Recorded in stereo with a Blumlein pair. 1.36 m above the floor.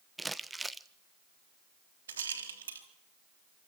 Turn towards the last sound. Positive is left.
turn(degrees=-65)